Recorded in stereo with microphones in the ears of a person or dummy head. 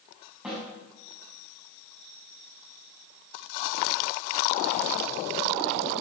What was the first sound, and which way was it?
A snare drum, 5° right (ahead or behind).